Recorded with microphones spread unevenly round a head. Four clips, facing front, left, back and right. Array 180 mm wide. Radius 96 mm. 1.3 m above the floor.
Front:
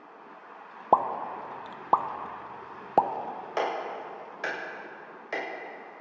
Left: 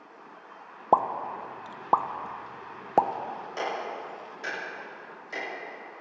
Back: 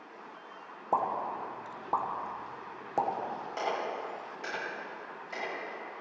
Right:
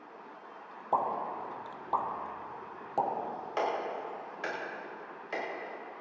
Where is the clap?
5° right, 6 m.